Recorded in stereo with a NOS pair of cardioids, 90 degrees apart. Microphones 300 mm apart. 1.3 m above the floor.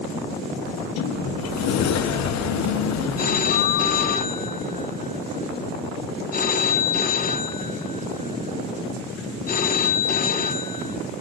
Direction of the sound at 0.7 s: 65° left.